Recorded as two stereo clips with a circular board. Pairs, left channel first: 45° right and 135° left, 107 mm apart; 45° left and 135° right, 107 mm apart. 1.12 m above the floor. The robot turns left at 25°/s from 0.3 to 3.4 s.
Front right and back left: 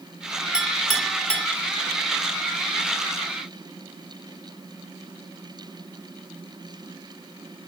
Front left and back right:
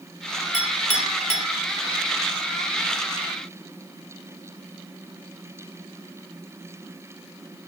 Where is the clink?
50° left, 1.8 m; by 1.5 s 30° left, 1.8 m.